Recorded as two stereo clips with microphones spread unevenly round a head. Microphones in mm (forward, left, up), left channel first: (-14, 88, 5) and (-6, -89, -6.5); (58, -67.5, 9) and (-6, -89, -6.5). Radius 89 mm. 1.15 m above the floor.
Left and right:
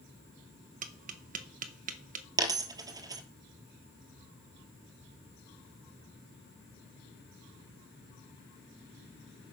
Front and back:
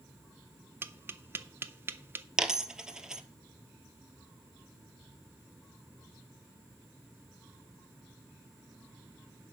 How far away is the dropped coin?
About 1.2 m.